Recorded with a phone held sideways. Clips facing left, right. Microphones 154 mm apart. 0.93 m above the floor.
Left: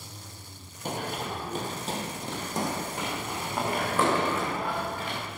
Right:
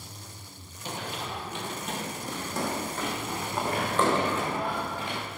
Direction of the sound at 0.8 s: 50° left (ahead or behind).